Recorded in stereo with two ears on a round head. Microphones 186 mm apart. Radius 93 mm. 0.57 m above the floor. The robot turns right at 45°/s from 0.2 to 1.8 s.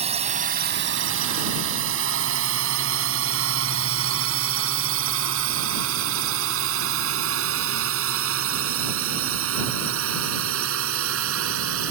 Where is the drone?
30° right (ahead or behind); by 11.9 s 75° right (ahead or behind).